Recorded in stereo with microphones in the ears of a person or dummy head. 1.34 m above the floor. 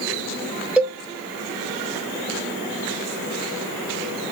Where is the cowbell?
5° right (ahead or behind), 0.6 m.